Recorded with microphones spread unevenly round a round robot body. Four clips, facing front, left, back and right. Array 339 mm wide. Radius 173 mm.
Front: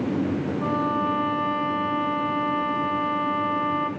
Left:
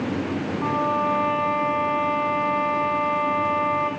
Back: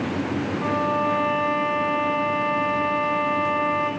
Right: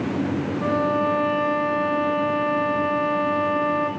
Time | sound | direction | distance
0.6 | a violin | 80° right | 1.1 m